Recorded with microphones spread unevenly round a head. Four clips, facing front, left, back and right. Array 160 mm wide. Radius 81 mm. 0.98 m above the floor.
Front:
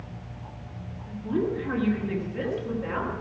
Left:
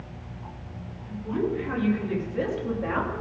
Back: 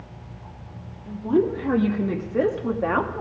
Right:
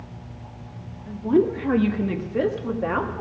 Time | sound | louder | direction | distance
1.1 | a woman speaking | right 8 dB, back 6 dB | 120° right | 1.5 m